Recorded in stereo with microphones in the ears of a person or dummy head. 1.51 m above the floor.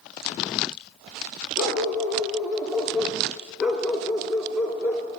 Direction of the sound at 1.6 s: 10° left (ahead or behind).